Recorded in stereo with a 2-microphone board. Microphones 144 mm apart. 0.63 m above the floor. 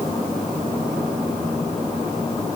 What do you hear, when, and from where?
Only background noise.